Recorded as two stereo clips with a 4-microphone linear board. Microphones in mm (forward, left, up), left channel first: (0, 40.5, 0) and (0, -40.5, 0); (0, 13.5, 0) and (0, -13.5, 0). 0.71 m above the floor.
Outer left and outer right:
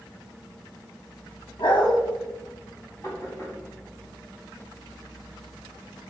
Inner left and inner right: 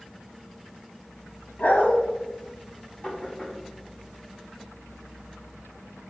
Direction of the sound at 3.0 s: 40° left (ahead or behind).